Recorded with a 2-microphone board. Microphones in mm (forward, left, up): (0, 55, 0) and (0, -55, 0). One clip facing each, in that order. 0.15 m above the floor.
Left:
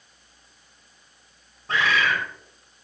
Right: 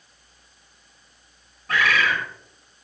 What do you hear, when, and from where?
1.7 s a bird: 30° left (ahead or behind), 7.5 m